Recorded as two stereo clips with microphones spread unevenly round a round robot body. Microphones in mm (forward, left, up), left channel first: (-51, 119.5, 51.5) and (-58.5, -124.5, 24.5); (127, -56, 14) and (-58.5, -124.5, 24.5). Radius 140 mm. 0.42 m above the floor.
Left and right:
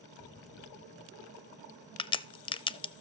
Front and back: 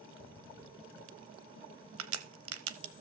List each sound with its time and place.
0.2 s an explosion: 145° left, 2.5 m
2.0 s a crack: 160° left, 0.5 m